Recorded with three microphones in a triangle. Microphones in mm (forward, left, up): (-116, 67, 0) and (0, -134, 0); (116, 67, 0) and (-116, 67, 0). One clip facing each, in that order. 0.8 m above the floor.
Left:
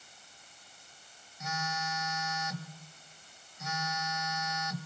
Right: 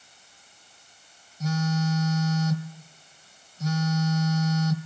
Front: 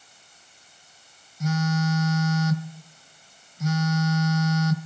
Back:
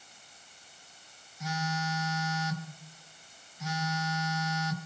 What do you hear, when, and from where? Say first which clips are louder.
1.4 s a phone buzzing: right 13 dB, front 10 dB; 25° right, 0.9 m